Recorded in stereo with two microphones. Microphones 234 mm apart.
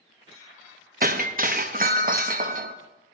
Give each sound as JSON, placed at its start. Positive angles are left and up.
{"t": 1.0, "sound": "breaking glass", "side_deg": -40, "distance_m": 0.6}